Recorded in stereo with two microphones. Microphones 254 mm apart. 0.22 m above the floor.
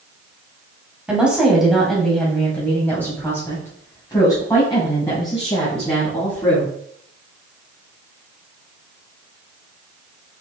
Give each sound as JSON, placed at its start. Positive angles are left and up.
{"t": 1.1, "sound": "a woman speaking", "side_deg": -5, "distance_m": 1.6}